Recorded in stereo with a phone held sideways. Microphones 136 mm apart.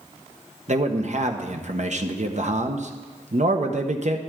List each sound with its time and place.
0.7 s a man speaking: 60° right (ahead or behind), 1.2 m